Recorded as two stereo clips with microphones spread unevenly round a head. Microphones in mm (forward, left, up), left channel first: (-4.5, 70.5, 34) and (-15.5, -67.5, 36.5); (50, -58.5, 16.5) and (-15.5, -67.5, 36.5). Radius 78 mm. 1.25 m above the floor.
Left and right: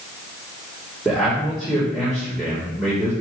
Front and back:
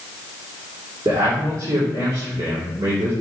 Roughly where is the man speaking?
Behind.